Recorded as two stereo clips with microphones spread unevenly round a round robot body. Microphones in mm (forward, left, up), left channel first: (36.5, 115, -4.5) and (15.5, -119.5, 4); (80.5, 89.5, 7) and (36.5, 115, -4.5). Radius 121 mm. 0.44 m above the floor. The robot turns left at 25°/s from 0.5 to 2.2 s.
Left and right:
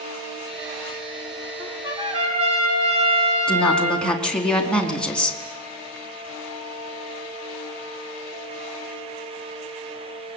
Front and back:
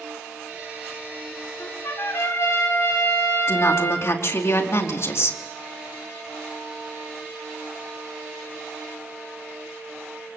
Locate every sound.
1.6 s a trumpet: 15° right, 8 m; by 4.1 s 30° right, 8 m
3.5 s a woman speaking: straight ahead, 4.5 m